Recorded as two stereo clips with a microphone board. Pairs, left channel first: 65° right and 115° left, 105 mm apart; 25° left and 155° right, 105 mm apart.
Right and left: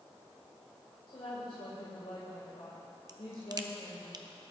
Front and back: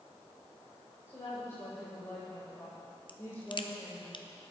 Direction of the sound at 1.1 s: 40° right.